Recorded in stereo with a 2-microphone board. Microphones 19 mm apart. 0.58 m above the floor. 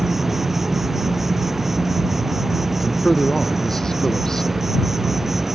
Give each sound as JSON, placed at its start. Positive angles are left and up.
{"t": 0.0, "sound": "an insect", "side_deg": -15}
{"t": 2.8, "sound": "a man speaking", "side_deg": 30}